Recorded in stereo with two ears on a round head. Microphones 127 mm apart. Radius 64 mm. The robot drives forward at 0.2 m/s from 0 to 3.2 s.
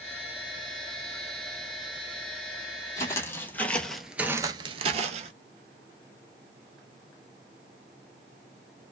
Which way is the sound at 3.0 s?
25° left (ahead or behind).